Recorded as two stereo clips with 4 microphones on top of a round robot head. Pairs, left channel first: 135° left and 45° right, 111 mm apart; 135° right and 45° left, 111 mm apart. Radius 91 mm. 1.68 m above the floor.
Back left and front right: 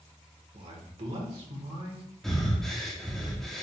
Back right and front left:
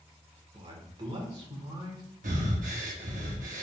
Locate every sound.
0.5 s a man speaking: 5° right, 1.8 m
2.2 s breathing: 50° left, 1.2 m